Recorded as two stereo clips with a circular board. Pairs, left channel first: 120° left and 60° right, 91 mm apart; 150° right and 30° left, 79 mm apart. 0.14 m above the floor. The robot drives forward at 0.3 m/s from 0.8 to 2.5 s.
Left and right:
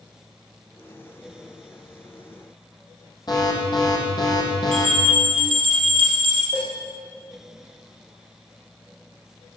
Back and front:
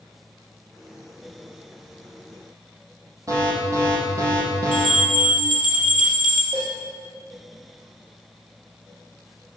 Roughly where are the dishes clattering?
Ahead.